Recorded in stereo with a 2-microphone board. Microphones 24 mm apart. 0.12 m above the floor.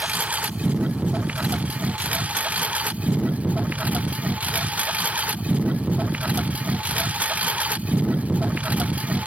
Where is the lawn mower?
90° right; by 9.3 s 85° right.